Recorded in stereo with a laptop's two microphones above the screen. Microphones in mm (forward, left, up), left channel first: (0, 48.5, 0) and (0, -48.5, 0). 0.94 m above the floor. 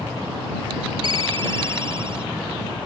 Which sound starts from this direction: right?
A ringtone, at 1.0 s.